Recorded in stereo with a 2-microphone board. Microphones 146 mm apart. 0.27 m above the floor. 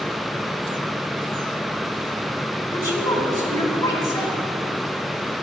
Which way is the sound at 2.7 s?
25° left (ahead or behind).